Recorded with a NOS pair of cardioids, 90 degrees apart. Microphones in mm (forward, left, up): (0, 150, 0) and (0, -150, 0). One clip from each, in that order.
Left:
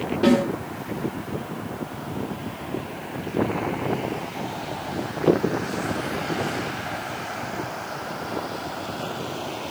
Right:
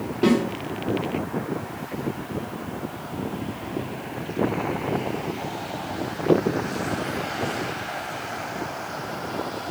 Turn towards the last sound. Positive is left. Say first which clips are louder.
# left 1 dB
turn(degrees=-25)